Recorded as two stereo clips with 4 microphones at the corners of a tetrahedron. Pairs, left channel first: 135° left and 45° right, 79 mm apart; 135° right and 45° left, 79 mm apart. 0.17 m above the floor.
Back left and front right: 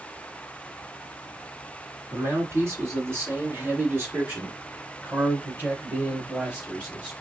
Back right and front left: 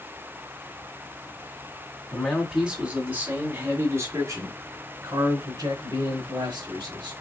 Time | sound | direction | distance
2.1 | a man speaking | 50° right | 1.9 m